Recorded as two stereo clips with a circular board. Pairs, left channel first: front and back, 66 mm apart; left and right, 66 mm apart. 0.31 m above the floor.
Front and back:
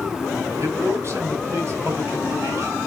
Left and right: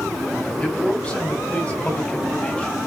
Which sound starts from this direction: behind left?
A man speaking, at 0.6 s.